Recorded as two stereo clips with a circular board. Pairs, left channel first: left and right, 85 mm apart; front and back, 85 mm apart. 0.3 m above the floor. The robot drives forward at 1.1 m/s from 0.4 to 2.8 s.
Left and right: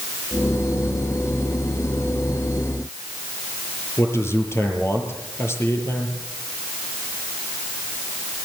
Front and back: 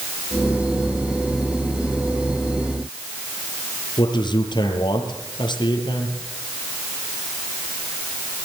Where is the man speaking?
30° left, 7.5 m.